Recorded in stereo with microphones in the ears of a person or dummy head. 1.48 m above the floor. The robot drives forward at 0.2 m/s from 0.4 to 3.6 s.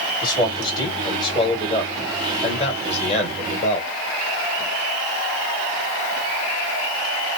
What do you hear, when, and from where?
0.2 s a man speaking: 20° left (ahead or behind), 1.5 m; by 3.9 s 35° left (ahead or behind), 1.0 m